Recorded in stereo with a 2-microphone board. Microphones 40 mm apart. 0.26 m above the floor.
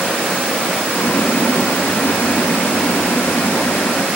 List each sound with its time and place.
0.9 s boiling: 75° left (ahead or behind)